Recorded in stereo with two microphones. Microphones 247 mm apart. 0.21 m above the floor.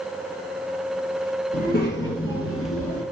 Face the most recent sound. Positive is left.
turn(degrees=70)  # may be behind; listen again after turning